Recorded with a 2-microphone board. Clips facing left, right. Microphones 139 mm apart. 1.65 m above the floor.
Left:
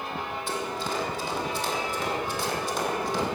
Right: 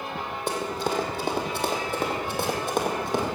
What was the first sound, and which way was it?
Running footsteps, 60° right (ahead or behind).